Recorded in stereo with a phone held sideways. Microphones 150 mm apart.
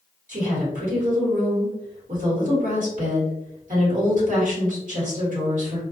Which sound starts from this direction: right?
A woman speaking, at 0.3 s.